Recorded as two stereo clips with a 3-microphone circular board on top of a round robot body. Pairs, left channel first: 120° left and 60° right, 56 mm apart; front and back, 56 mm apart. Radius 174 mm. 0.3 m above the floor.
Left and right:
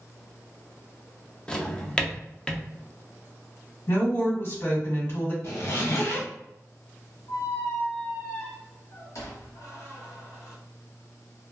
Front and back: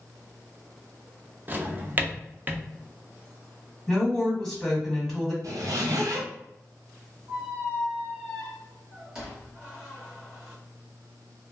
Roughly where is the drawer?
Behind.